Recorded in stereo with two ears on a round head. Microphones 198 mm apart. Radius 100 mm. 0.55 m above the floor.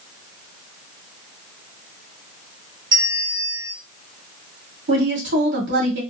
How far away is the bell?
About 2 m.